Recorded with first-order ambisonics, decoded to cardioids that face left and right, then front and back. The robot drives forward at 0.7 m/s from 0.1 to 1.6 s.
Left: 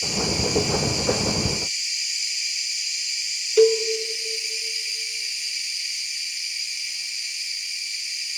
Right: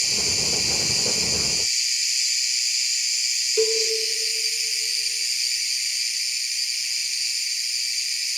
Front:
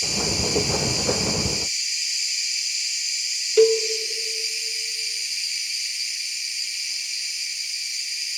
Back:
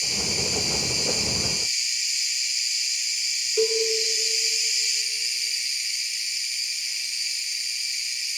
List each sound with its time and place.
0.0 s an insect: 85° right, 3.5 m; by 8.4 s 100° right, 4 m
3.6 s a cowbell: 40° left, 0.5 m